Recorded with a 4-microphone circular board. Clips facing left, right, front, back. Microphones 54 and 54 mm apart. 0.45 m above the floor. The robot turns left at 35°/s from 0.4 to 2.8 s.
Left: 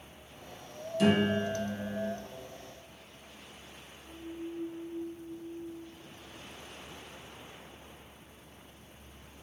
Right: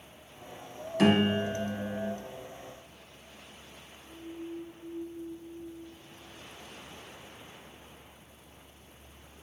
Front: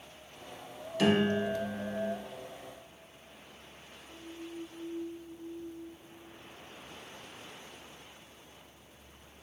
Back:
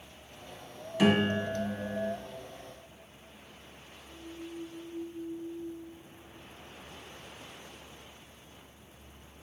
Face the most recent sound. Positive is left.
turn(degrees=-170)